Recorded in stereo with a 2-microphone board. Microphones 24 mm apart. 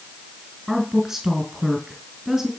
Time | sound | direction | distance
0.7 | a woman speaking | 10° right (ahead or behind) | 2.5 m